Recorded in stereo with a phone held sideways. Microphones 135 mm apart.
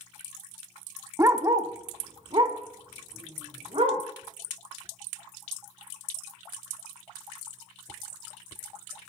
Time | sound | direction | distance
1.2 | a dog barking | 20° right (ahead or behind) | 0.8 m